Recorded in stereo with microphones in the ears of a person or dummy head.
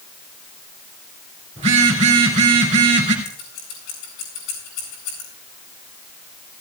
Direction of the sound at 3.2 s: 65° left (ahead or behind).